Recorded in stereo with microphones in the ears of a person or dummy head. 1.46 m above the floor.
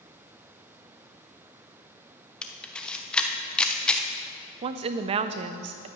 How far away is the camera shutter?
About 0.6 m.